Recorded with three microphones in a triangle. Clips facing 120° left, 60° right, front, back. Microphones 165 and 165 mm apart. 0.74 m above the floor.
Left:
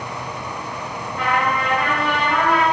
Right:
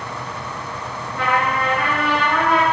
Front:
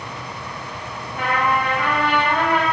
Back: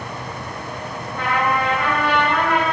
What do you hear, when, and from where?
1.1 s a trumpet: 70° left, 1.3 m